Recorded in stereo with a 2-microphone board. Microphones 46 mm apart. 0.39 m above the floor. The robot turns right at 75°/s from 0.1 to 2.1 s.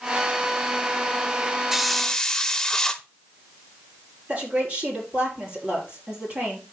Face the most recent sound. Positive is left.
turn(degrees=-35)  # may be behind; listen again after turning